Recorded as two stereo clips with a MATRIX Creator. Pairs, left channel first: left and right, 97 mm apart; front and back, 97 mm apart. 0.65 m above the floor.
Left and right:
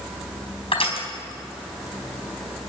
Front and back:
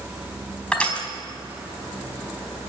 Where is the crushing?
80° left, 4 m.